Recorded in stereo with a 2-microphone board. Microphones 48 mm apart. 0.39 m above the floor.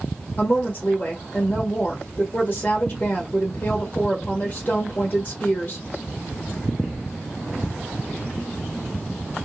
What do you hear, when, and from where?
0.4 s a woman speaking: 35° left (ahead or behind), 1.2 m